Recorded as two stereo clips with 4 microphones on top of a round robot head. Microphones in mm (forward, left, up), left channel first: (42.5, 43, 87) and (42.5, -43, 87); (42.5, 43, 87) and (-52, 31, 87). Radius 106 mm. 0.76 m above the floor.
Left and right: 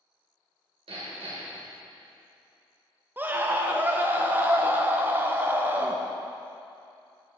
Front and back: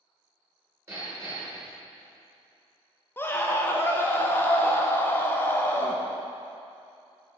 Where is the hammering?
105° right, 2.5 m.